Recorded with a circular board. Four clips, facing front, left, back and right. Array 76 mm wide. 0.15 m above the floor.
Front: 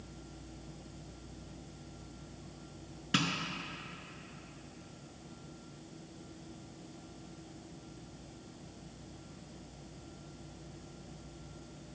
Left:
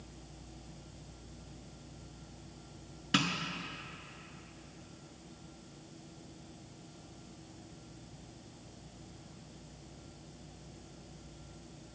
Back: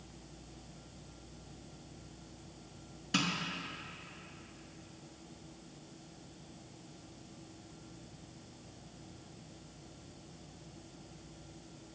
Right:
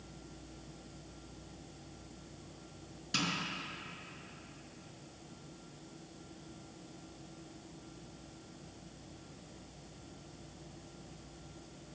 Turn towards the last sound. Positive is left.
turn(degrees=55)